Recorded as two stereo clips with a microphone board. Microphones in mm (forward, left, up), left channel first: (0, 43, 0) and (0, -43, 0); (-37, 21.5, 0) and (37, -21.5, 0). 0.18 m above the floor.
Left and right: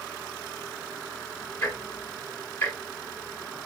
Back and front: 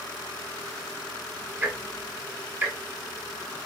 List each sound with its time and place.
1.6 s ticking: 30° left, 1.2 m